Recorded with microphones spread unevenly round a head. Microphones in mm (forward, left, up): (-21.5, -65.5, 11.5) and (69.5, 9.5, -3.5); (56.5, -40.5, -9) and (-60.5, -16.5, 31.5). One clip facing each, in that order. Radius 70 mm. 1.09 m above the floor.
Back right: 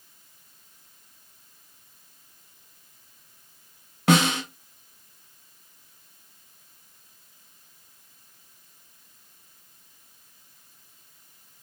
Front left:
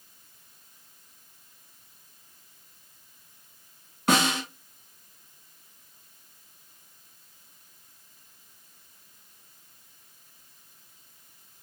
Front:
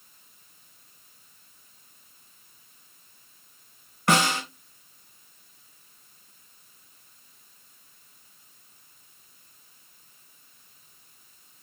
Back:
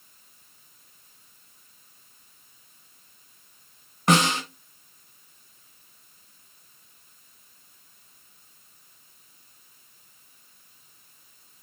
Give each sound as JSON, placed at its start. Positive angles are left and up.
{"t": 4.1, "sound": "a snare drum", "azimuth_deg": -125, "distance_m": 2.5}